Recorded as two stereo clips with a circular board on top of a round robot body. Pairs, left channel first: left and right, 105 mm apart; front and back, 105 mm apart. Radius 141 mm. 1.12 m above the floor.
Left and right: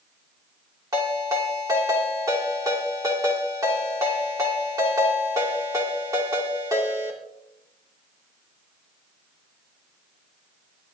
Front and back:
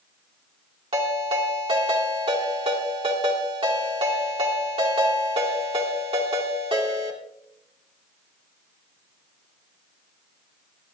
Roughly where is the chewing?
No chewing in this recording.